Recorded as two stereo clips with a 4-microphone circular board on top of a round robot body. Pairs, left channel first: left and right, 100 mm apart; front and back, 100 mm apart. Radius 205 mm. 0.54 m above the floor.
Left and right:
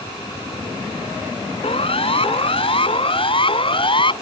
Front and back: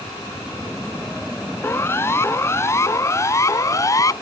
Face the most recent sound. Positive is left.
turn(degrees=55)